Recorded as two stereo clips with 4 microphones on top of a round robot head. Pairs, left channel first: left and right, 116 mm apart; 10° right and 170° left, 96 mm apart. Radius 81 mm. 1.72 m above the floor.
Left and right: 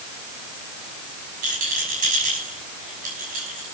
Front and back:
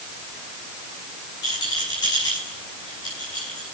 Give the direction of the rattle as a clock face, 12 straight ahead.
2 o'clock.